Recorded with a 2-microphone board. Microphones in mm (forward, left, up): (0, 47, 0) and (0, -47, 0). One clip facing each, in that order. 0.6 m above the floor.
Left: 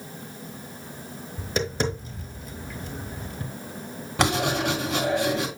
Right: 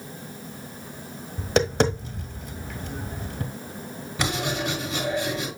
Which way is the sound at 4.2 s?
80° left.